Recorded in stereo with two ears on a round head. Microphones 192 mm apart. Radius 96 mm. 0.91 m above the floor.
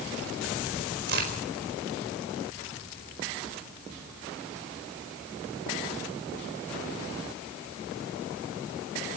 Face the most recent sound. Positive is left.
turn(degrees=-55)  # may be behind; listen again after turning